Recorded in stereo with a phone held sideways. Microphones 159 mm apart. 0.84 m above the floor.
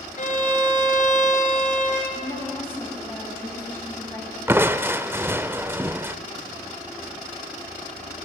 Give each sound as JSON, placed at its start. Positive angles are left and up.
{"t": 0.2, "sound": "a violin", "side_deg": 55, "distance_m": 3.5}
{"t": 2.1, "sound": "a woman speaking", "side_deg": 15, "distance_m": 6.0}
{"t": 4.5, "sound": "crushing", "side_deg": -15, "distance_m": 0.6}